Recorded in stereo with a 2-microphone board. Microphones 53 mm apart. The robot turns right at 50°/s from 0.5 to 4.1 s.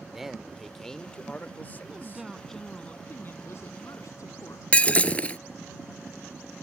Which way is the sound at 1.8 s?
30° right.